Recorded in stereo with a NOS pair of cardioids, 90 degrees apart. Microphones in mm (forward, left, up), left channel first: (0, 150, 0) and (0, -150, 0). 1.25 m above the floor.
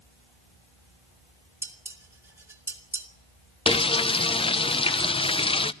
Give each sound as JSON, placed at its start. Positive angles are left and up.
{"t": 1.6, "sound": "dishes clattering", "azimuth_deg": -10, "distance_m": 3.0}
{"t": 3.7, "sound": "frying", "azimuth_deg": 20, "distance_m": 0.7}